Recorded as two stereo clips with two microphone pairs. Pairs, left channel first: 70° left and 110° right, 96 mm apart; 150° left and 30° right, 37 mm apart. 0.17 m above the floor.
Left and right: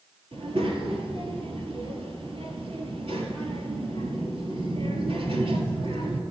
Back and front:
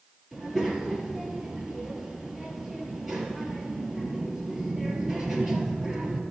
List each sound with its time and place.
0.3 s a child speaking: 110° right, 2 m